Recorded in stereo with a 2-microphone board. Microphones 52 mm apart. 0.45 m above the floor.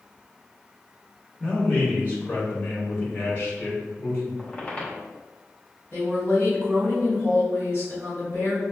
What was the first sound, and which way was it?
A man speaking, 25° left (ahead or behind).